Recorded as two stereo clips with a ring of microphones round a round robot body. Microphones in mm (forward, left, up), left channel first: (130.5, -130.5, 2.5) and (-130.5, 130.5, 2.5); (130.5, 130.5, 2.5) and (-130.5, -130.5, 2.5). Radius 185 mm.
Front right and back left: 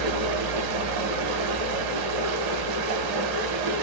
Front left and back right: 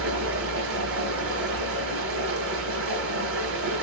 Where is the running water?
170° left, 0.8 m.